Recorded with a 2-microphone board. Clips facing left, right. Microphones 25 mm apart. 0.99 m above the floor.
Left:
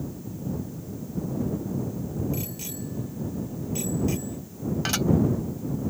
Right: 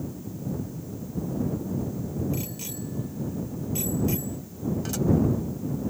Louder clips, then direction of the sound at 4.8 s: Left 5 dB; 55° left (ahead or behind).